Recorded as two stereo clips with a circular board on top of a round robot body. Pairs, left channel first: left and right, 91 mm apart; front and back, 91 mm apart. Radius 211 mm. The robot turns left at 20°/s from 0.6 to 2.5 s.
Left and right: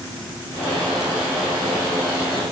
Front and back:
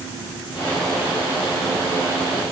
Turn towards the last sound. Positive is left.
No sound to turn to.